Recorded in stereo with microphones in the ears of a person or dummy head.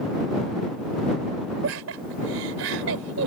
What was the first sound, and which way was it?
Laughter, 80° right.